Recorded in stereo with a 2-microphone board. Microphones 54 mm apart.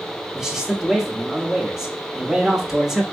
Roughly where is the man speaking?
Centre.